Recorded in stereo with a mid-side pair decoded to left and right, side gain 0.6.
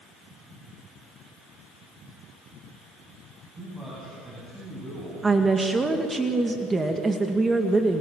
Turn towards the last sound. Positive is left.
turn(degrees=-20)